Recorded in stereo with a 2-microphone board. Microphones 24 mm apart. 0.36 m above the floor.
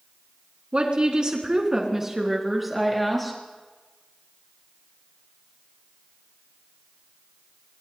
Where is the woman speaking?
45° right (ahead or behind), 3 m; by 3.3 s 5° left (ahead or behind), 4.5 m.